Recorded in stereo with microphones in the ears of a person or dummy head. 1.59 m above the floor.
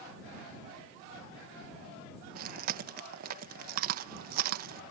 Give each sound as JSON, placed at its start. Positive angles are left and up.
{"t": 2.4, "sound": "chewing", "side_deg": -50}